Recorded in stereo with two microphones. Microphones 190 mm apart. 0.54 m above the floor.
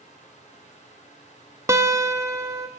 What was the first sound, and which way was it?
A guitar, 15° right (ahead or behind).